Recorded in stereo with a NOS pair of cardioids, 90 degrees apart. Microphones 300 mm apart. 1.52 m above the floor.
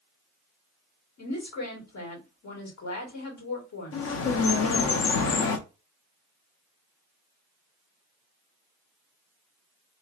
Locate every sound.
1.2 s a woman speaking: 60° left, 2 m
3.9 s a bird: 50° left, 0.7 m